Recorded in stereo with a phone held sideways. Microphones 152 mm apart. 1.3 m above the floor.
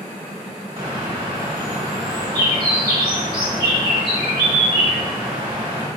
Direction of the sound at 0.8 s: 35° right (ahead or behind).